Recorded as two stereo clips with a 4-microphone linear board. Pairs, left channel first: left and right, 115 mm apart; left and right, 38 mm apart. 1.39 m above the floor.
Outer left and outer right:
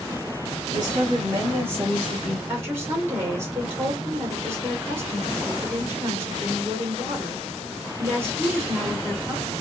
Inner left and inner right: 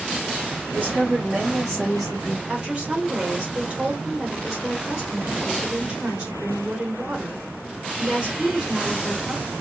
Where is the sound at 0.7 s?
40° right (ahead or behind), 2.5 m; by 2.4 s 5° right (ahead or behind), 2.5 m.